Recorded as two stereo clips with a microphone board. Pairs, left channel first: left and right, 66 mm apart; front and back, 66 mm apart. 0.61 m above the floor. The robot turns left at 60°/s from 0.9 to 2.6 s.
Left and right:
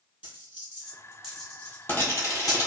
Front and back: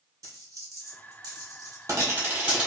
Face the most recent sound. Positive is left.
turn(degrees=100)